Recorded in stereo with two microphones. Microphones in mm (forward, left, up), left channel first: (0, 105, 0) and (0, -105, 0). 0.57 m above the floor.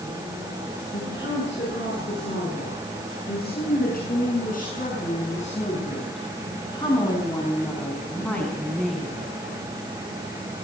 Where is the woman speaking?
60° left (ahead or behind), 9 m; by 9.2 s centre (ahead or behind), 6 m.